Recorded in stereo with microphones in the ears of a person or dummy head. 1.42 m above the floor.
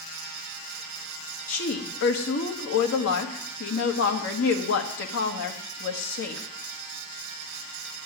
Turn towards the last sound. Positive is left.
turn(degrees=80)